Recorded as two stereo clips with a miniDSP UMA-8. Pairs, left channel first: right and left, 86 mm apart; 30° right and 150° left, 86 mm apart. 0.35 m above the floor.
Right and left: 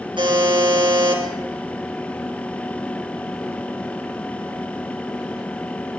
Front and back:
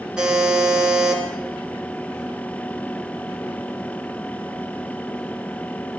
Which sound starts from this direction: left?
A buzzer, at 0.2 s.